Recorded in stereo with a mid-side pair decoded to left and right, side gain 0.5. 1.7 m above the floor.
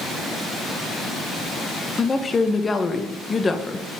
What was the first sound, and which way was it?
A woman speaking, 25° left.